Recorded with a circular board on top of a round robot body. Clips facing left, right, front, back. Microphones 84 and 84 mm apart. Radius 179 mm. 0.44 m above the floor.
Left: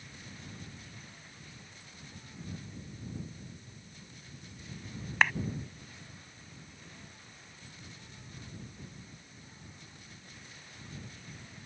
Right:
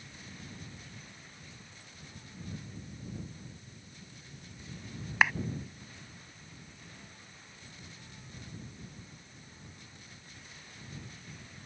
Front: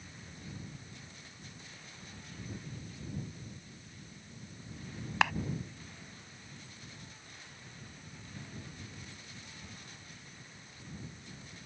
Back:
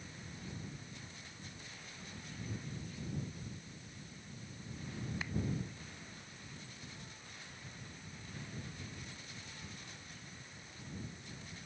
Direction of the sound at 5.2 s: 5° right.